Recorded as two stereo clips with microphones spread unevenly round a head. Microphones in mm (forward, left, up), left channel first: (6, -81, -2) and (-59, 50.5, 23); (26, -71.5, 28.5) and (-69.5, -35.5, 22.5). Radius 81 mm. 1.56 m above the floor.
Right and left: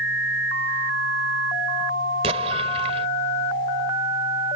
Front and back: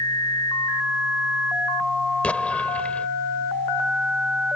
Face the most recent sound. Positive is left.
turn(degrees=60)